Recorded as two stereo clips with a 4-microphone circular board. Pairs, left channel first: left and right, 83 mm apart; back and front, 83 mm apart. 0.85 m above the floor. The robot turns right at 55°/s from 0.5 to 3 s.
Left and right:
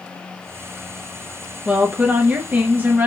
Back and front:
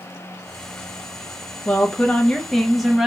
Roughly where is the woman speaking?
Behind right.